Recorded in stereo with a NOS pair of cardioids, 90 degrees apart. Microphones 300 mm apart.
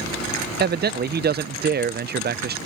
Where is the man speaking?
35° right.